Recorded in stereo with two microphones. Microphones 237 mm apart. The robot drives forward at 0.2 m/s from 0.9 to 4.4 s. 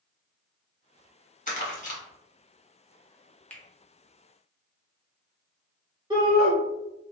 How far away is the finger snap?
About 0.5 m.